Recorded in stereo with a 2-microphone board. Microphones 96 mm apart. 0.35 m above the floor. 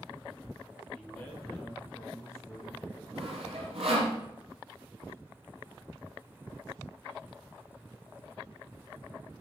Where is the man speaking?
15° left (ahead or behind), 4.5 m; by 3.0 s 30° left (ahead or behind), 4.5 m.